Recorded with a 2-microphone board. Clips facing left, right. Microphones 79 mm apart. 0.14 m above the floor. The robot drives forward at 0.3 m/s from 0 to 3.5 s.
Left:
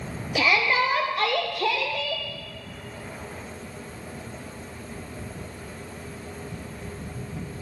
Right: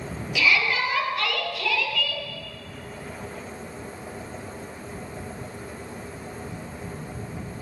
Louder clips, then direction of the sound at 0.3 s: Left 1 dB; 40° left (ahead or behind).